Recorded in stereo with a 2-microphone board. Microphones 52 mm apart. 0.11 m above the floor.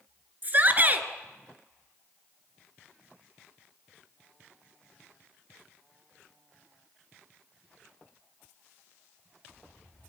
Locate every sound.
0.4 s a shout: 35° right (ahead or behind), 1.5 m